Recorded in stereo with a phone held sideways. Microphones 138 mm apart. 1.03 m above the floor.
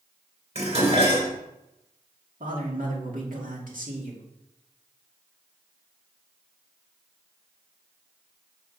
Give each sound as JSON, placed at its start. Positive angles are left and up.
{"t": 0.6, "sound": "dishes clattering", "side_deg": -50, "distance_m": 2.5}
{"t": 2.4, "sound": "a man speaking", "side_deg": -75, "distance_m": 2.5}